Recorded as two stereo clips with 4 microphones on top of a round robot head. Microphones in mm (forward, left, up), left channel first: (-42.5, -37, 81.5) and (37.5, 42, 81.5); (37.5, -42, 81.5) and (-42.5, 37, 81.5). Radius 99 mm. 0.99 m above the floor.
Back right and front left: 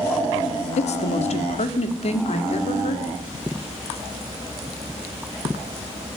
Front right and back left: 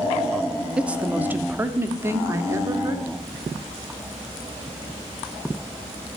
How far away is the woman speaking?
About 2.5 m.